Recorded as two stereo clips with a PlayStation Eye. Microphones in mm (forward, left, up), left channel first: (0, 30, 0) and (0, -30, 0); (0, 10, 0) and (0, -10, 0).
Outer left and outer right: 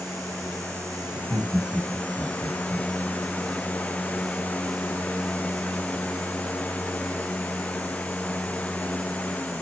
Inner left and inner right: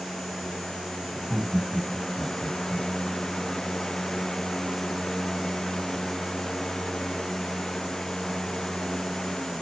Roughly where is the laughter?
Right.